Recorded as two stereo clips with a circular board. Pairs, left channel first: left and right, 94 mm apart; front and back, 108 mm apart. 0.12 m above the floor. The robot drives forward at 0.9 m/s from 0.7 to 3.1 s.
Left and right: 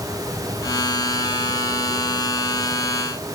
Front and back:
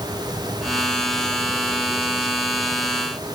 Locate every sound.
Only background noise.